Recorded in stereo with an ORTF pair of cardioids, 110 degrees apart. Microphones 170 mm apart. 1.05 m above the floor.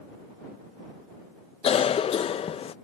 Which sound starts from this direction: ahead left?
A cough, at 1.6 s.